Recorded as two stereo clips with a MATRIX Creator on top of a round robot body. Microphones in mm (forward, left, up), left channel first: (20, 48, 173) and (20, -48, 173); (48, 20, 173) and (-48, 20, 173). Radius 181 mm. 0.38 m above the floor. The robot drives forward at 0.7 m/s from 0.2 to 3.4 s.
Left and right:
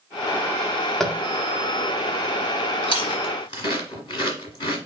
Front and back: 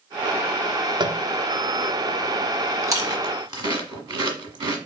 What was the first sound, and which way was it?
Tapping, 170° left.